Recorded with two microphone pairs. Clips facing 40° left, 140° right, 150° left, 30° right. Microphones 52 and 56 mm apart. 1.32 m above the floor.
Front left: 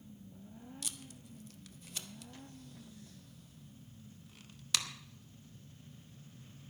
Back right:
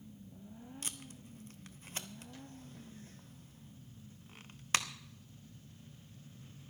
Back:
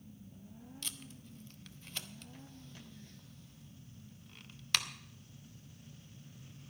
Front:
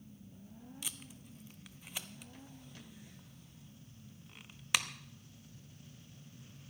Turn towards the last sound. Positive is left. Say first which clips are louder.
# back right 1 dB, back 2 dB
turn(degrees=-105)